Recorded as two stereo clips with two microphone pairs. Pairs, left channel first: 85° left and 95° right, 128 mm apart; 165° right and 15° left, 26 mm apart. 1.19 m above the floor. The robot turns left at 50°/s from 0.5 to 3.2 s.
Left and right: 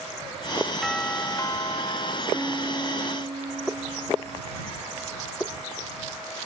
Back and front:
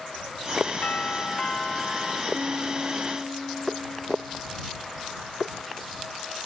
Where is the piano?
20° right; by 4.4 s 60° right.